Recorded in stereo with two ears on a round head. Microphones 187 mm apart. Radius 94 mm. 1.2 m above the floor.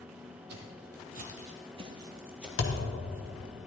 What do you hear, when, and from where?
0.5 s footsteps: 55° right (ahead or behind), 2.0 m; by 2.9 s 10° left (ahead or behind), 1.4 m
2.6 s a thud: 60° left (ahead or behind), 1.5 m